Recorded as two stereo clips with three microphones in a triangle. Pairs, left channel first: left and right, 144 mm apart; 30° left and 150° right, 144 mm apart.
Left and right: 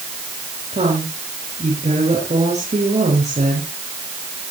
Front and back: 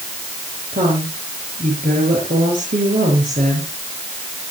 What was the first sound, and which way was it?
A woman speaking, 130° right.